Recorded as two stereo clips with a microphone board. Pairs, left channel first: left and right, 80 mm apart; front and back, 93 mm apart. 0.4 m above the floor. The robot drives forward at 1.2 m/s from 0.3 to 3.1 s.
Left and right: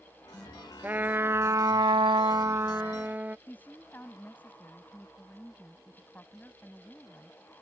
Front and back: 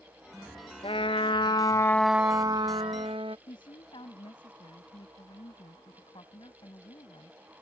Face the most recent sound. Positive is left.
turn(degrees=25)